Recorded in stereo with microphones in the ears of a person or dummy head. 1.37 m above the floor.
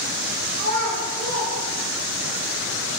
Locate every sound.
0.6 s a child speaking: 60° right (ahead or behind), 1.3 m; by 2.3 s 15° right (ahead or behind), 0.9 m